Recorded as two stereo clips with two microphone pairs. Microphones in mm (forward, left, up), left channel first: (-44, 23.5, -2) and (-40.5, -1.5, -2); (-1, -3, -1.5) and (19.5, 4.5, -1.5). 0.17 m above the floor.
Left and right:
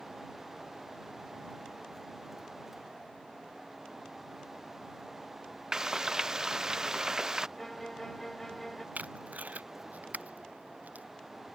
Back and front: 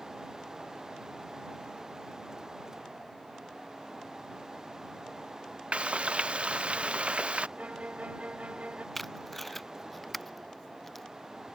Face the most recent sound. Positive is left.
turn(degrees=-80)